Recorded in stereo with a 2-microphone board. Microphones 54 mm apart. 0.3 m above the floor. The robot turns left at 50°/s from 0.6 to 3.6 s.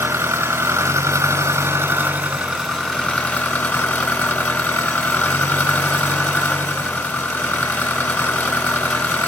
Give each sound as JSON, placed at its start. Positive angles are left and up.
{"t": 0.0, "sound": "an engine running", "azimuth_deg": -75, "distance_m": 1.8}